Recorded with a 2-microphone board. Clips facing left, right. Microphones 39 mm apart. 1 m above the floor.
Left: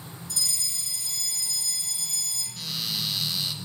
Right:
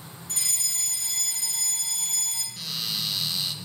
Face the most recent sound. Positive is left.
turn(degrees=0)  # may be behind; listen again after turning